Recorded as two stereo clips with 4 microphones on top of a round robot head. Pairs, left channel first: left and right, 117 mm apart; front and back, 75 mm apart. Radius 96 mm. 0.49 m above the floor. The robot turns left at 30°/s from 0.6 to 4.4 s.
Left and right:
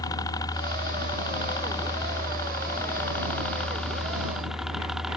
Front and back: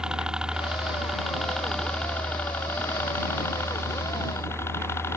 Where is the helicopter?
110° left; by 5.2 s 5° right.